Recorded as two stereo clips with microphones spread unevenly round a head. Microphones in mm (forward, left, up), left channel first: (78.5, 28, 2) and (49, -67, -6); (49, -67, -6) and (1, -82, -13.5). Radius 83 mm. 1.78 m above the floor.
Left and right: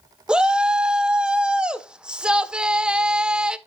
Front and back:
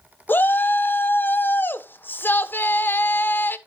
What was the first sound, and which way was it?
A shout, 25° right.